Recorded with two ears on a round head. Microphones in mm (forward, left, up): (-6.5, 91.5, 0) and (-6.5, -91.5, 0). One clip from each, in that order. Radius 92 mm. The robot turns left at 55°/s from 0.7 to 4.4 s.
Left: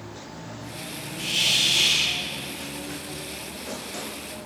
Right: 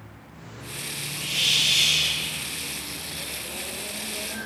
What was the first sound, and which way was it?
A hiss, 50° left.